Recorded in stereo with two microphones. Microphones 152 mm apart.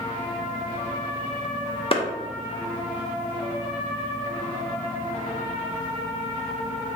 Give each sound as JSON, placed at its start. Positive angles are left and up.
{"t": 1.9, "sound": "a clap", "side_deg": 35, "distance_m": 0.5}